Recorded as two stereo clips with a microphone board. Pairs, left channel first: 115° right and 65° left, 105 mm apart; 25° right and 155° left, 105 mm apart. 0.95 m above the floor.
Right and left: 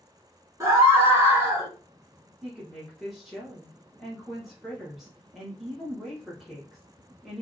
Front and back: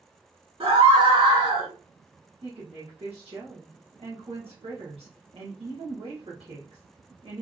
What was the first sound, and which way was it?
A scream, 130° left.